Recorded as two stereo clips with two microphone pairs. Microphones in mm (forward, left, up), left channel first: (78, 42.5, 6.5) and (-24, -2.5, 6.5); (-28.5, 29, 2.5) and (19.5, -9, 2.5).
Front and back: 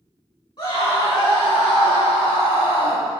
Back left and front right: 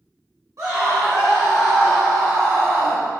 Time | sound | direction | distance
0.6 | a scream | 20° right | 3 m